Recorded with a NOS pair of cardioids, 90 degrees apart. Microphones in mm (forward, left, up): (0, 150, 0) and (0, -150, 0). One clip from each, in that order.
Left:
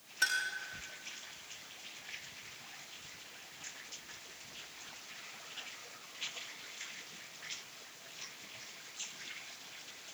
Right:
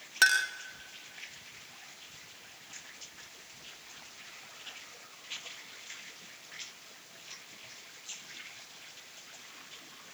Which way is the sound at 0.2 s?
70° right.